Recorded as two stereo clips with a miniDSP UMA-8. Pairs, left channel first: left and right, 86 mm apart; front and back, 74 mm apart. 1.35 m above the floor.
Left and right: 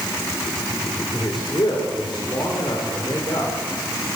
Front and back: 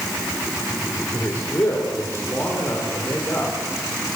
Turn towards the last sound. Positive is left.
turn(degrees=60)